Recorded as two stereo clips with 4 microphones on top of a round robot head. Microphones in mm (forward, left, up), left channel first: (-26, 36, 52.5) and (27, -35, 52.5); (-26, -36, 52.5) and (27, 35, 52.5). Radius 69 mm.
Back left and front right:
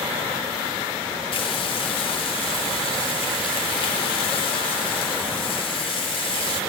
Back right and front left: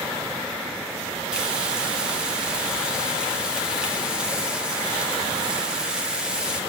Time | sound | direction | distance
1.3 | frying | 135° left | 2.5 m